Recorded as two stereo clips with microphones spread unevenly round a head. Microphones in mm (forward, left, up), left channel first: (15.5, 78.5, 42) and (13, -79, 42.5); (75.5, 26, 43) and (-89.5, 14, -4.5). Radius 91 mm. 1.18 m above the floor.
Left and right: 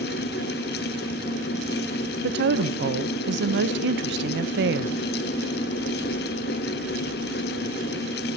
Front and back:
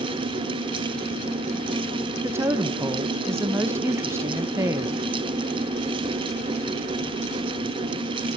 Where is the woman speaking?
105° right, 1.0 m.